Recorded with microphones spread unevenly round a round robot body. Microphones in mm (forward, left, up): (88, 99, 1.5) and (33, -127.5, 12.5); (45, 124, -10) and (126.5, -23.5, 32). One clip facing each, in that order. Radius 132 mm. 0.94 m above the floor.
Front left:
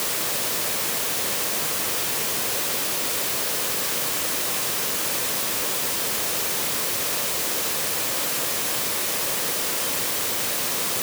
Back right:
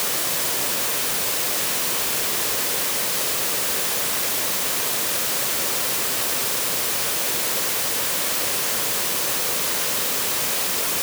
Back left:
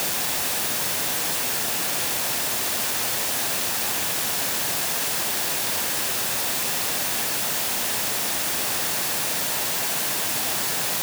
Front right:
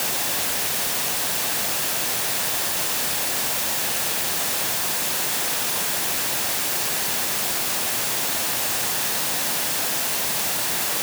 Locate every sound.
Only background noise.